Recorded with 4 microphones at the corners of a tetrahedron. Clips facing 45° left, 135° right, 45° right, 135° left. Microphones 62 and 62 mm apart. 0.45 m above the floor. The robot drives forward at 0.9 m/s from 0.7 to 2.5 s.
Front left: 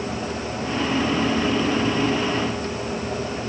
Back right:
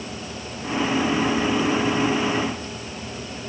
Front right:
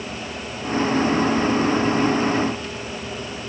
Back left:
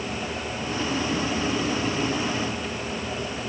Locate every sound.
Only background noise.